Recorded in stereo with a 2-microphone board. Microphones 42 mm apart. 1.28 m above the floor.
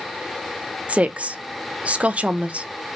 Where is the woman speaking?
30° right (ahead or behind), 0.7 m.